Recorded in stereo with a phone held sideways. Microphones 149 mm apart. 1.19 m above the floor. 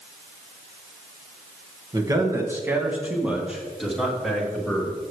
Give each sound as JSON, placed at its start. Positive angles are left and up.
{"t": 1.9, "sound": "a man speaking", "side_deg": -25, "distance_m": 1.5}